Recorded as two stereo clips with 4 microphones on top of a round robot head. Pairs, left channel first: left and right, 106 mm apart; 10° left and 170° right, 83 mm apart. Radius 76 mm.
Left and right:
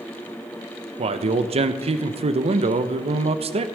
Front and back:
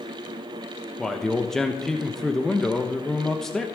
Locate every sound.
1.0 s a man speaking: 75° right, 1.0 m